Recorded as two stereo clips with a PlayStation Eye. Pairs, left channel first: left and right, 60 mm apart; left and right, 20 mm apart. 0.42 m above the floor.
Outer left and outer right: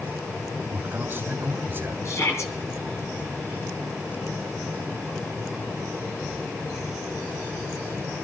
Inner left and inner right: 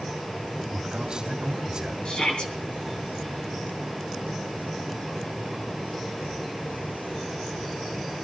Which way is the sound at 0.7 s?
30° right (ahead or behind).